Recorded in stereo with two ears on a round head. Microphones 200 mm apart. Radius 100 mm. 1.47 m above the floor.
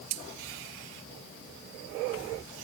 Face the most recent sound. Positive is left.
No sound to turn to.